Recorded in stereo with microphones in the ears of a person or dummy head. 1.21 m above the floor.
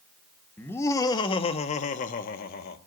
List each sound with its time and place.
0.6 s laughter: 10° left (ahead or behind), 1.3 m; by 2.8 s 55° left (ahead or behind), 1.6 m